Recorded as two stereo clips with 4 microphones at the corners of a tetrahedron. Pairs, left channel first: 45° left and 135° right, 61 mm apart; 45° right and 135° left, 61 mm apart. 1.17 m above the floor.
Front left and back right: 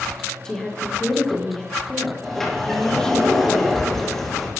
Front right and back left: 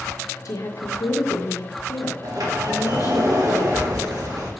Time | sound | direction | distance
0.5 | a woman speaking | 35° right | 1.3 m
2.2 | a sliding door | 130° left | 2 m